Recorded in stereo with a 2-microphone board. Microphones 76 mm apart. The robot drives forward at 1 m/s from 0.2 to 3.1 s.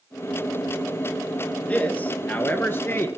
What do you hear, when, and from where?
1.7 s a man speaking: 20° left (ahead or behind), 2.5 m; by 3.1 s 30° left (ahead or behind), 1.5 m